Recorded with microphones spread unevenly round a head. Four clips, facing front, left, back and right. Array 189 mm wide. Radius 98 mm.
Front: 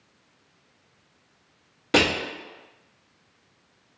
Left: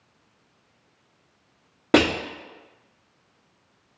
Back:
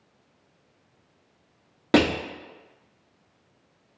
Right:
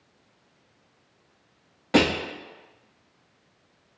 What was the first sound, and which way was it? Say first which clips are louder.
Crushing: left 2 dB, back 2 dB; 105° left.